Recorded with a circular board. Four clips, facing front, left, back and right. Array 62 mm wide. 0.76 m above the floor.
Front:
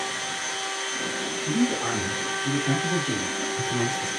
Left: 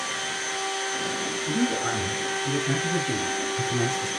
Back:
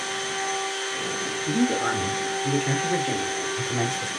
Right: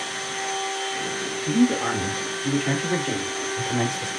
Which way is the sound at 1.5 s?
120° right.